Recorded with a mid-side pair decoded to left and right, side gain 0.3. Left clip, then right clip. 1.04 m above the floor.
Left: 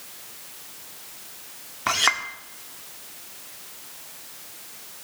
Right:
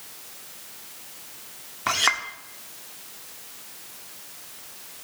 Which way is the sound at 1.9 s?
5° left.